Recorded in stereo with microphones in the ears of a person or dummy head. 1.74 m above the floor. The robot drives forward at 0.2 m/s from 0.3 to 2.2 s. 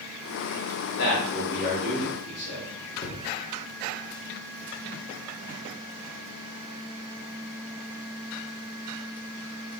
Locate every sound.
1.0 s a man speaking: 70° left (ahead or behind), 1.0 m; by 2.7 s 60° left (ahead or behind), 1.1 m
3.0 s a cupboard door: 35° left (ahead or behind), 0.7 m